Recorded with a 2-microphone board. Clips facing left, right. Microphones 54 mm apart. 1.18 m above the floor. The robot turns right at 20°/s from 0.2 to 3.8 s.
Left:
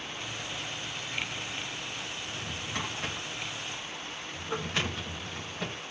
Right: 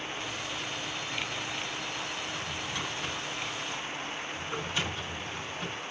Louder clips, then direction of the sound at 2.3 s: Right 2 dB; 45° left (ahead or behind).